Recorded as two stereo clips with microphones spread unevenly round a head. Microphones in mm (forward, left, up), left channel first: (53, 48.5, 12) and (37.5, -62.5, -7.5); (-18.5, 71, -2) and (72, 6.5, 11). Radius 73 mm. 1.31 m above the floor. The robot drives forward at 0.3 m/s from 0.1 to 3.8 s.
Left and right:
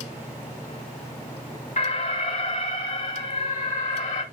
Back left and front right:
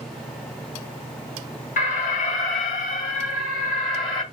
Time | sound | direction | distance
1.8 | an alarm | 135° left | 1.5 m